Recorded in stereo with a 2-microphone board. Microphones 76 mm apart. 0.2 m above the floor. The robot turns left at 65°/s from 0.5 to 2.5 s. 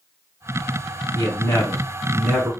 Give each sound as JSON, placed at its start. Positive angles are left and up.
{"t": 1.1, "sound": "a man speaking", "azimuth_deg": 65, "distance_m": 2.5}